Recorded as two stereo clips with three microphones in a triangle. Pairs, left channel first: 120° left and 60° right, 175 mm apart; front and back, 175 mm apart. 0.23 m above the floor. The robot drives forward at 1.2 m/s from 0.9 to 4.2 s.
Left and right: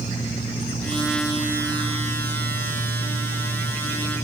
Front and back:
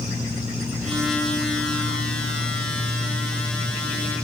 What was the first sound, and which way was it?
Only background noise.